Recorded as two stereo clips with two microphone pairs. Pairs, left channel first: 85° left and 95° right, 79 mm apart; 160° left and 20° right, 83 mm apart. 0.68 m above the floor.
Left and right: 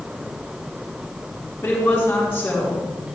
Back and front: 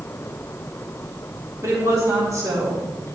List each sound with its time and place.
1.6 s a woman speaking: 15° left, 4 m